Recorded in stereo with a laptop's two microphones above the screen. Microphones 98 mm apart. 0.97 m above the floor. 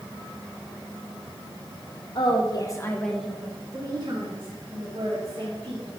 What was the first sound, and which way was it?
A woman speaking, 60° left (ahead or behind).